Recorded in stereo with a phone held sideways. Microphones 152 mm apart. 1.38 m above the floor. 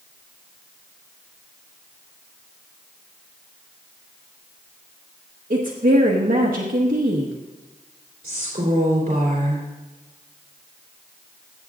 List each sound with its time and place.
5.5 s a woman speaking: 80° right, 1.2 m
8.2 s a woman speaking: 65° right (ahead or behind), 3 m